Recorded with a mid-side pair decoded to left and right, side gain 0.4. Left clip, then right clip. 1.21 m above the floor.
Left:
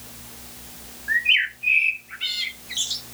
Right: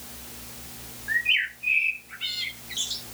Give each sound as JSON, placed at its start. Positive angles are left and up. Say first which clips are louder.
{"t": 1.1, "sound": "a bird", "louder": "left 4 dB", "azimuth_deg": 35, "distance_m": 1.0}